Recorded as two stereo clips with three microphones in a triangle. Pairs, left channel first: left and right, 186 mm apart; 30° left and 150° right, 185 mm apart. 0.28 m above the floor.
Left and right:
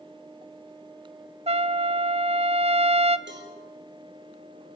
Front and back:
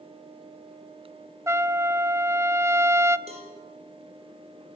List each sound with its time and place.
1.5 s a trumpet: 85° right, 0.7 m
3.3 s a cowbell: 95° right, 5.5 m